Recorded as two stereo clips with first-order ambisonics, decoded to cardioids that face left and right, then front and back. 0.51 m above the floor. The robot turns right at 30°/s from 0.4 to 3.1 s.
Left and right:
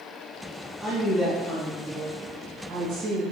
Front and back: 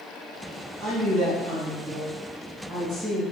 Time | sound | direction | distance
0.8 | a woman speaking | 170° left | 1.8 m